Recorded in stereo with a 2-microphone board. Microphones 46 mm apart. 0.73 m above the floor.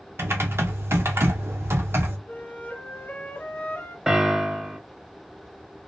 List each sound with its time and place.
0.2 s typing on a keyboard: 70° right (ahead or behind), 0.6 m
2.3 s a flute: 50° left (ahead or behind), 0.9 m
4.1 s a piano: 15° right (ahead or behind), 0.5 m